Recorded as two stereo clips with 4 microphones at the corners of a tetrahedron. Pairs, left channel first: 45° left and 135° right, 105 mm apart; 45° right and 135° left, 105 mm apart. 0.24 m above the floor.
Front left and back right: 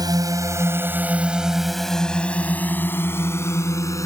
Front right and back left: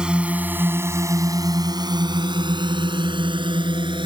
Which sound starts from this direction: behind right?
A drone, at 0.0 s.